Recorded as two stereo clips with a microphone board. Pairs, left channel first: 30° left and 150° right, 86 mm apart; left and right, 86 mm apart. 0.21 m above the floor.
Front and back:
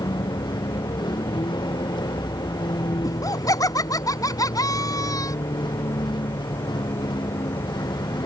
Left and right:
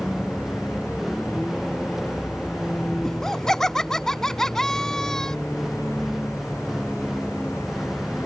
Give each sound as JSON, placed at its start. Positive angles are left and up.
{"t": 0.0, "sound": "a vehicle", "azimuth_deg": -5}
{"t": 3.0, "sound": "laughter", "azimuth_deg": 5}